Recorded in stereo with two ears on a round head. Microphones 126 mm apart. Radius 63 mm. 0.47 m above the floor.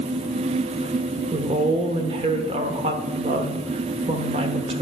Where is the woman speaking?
40° right (ahead or behind), 1.0 m.